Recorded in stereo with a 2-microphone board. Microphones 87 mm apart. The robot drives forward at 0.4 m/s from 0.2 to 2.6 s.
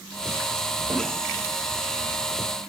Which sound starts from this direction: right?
A snare drum, at 0.9 s.